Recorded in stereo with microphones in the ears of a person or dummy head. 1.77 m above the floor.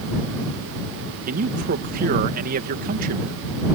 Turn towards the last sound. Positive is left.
turn(degrees=-45)  # may be behind; listen again after turning